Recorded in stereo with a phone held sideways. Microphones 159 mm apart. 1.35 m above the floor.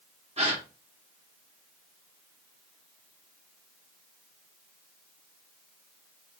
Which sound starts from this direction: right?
A gasp, at 0.4 s.